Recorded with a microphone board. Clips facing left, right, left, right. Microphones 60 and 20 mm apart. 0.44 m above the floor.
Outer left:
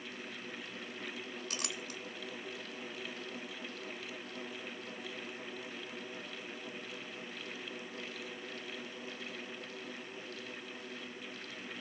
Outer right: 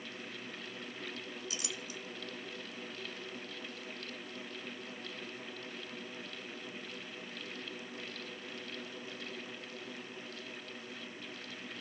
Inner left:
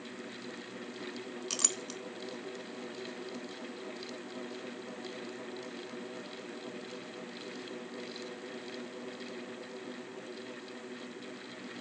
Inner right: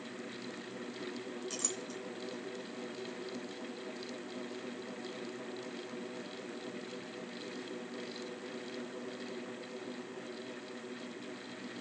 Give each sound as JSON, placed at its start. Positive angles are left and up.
{"t": 1.5, "sound": "a clink", "side_deg": 60, "distance_m": 0.9}